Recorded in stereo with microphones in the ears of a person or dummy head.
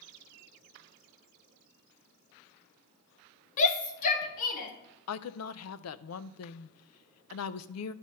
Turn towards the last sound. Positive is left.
turn(degrees=75)  # may be behind; listen again after turning